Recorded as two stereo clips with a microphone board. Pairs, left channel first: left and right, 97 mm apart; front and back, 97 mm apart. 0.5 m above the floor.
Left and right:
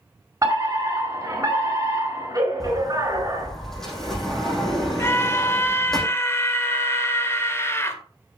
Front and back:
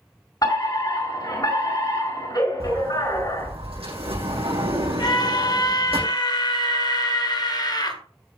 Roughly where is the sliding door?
Behind.